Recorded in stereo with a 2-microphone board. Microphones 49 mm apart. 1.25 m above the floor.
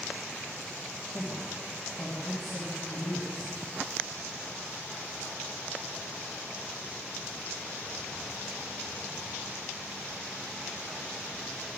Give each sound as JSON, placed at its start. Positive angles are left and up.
{"t": 1.1, "sound": "a man speaking", "side_deg": 35, "distance_m": 2.5}